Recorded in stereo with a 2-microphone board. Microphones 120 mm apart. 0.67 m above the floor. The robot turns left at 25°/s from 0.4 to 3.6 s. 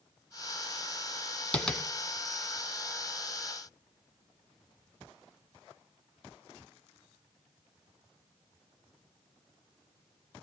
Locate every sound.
1.5 s tapping: 10° left (ahead or behind), 1.1 m; by 1.8 s centre (ahead or behind), 1.1 m